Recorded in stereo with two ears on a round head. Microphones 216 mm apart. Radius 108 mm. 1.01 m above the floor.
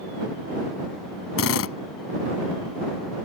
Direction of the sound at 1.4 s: 65° left (ahead or behind).